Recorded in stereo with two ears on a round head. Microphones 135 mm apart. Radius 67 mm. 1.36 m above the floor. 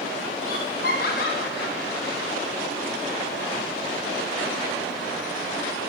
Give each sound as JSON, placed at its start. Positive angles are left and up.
{"t": 0.4, "sound": "laughter", "side_deg": 60, "distance_m": 7.5}